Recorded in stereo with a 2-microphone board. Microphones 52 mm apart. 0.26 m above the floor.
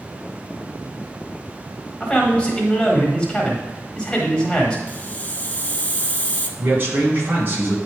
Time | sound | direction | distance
2.0 | a man speaking | 20° left (ahead or behind) | 1.5 m
4.9 | a hiss | 30° left (ahead or behind) | 0.7 m
6.6 | a man speaking | 35° right (ahead or behind) | 2 m